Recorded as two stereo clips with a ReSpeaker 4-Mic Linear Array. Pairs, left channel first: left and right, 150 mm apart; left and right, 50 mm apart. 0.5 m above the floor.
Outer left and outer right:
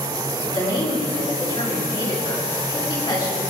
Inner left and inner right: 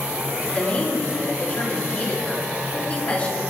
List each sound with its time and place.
0.4 s a woman speaking: 25° left (ahead or behind), 6.5 m